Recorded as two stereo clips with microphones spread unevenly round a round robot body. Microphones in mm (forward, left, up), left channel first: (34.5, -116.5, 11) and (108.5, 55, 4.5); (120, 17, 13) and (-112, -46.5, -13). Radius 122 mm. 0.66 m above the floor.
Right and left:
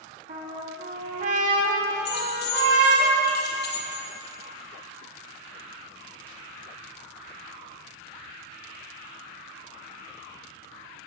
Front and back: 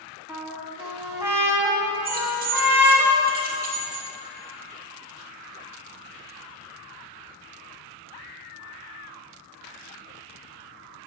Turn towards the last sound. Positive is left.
turn(degrees=-125)